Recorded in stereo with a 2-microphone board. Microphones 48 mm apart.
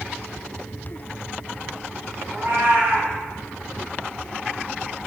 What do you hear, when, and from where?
2.3 s a cat meowing: 45° right (ahead or behind), 1.5 m